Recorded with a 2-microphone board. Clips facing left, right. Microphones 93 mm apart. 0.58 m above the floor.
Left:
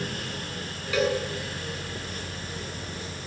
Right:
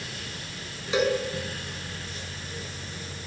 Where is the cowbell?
20° right (ahead or behind), 7 m.